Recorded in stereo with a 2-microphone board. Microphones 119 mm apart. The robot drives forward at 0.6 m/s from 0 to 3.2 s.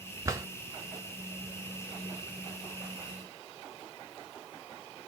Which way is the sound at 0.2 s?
25° right (ahead or behind).